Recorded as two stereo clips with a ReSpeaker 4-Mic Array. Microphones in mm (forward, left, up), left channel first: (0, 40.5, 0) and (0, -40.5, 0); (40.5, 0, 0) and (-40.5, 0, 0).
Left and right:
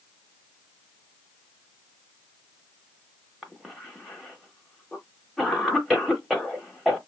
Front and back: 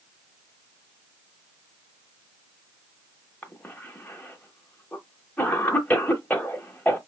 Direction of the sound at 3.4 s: 5° right.